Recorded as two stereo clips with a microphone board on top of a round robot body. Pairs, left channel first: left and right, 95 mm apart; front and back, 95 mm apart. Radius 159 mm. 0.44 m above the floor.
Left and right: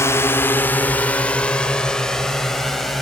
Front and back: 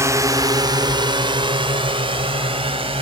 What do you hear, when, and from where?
0.0 s a drone: 140° left; by 3.0 s straight behind